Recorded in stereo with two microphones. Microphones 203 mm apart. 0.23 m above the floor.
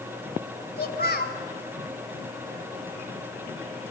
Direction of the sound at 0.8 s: 50° left (ahead or behind).